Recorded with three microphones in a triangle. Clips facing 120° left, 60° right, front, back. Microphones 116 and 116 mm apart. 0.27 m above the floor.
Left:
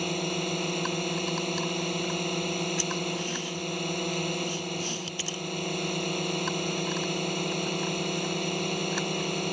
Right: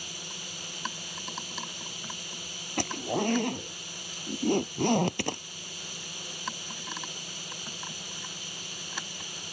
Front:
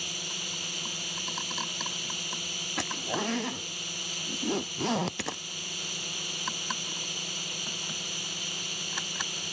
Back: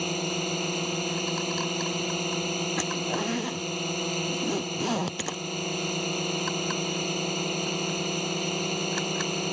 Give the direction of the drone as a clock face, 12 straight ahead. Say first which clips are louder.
Left 16 dB, back 14 dB; 7 o'clock.